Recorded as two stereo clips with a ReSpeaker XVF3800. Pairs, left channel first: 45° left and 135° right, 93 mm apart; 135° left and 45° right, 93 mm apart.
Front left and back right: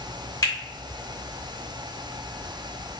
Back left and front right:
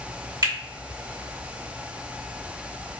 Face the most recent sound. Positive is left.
turn(degrees=-5)